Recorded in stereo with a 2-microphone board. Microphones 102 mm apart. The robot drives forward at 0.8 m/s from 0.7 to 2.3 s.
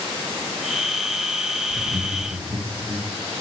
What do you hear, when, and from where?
1.7 s laughter: 35° right (ahead or behind), 3 m